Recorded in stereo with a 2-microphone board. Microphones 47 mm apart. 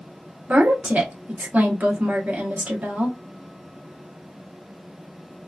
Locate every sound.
0.5 s a woman speaking: 35° right (ahead or behind), 0.8 m